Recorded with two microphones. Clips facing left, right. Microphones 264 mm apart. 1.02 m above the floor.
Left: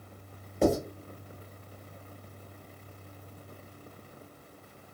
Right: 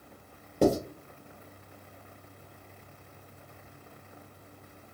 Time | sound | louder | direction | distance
0.6 | writing | right 1 dB | 50° right (ahead or behind) | 1.9 m